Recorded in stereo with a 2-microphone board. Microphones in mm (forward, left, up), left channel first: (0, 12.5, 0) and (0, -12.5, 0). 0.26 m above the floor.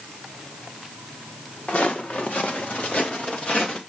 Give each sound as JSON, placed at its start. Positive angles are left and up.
{"t": 1.7, "sound": "footsteps", "side_deg": 75, "distance_m": 2.0}